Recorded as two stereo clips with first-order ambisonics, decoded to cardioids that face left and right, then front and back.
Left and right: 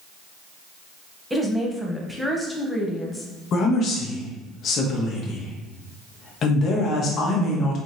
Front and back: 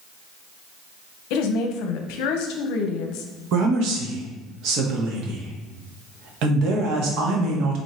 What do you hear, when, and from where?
1.3 s a woman speaking: straight ahead, 0.7 m
3.5 s a woman speaking: 145° left, 1.0 m